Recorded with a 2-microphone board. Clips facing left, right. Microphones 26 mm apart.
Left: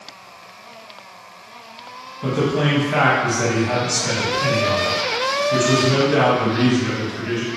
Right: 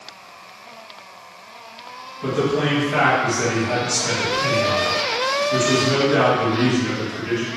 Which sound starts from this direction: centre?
A man speaking, at 2.2 s.